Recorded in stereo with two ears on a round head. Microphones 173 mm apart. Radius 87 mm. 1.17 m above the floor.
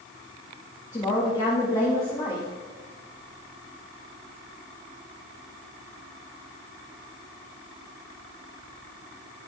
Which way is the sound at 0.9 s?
20° left (ahead or behind).